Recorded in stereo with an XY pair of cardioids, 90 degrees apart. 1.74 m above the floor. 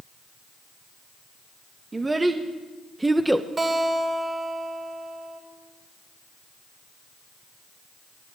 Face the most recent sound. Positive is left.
turn(degrees=-35)